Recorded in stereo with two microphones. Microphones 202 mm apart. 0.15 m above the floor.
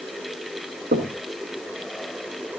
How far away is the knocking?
About 1.8 m.